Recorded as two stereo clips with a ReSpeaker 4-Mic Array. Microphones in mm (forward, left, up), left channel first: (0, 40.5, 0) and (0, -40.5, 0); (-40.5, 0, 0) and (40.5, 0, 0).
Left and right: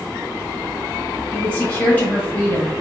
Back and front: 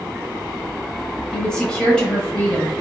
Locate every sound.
1.3 s a woman speaking: 120° left, 1.0 m